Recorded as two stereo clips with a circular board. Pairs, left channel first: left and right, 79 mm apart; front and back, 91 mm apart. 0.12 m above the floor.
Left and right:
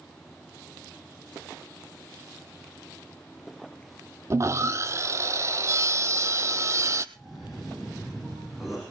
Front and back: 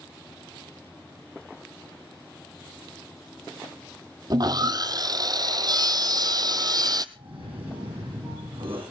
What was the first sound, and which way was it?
Sawing, 140° right.